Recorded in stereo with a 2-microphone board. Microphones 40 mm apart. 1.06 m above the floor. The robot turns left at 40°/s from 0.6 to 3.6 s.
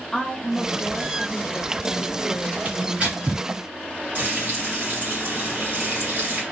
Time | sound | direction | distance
0.1 | a woman speaking | 165° left | 0.6 m
2.6 | tearing paper | 40° right (ahead or behind) | 1.7 m
4.2 | frying | 45° right (ahead or behind) | 1.1 m